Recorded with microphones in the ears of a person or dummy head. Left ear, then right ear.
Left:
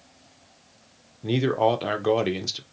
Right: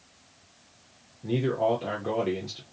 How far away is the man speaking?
About 0.5 m.